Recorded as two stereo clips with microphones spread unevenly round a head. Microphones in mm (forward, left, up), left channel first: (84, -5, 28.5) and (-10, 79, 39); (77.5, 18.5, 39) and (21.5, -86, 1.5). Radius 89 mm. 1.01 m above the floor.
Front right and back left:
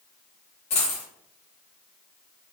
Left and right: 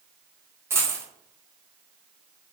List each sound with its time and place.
0.7 s a dropped coin: 40° right, 0.9 m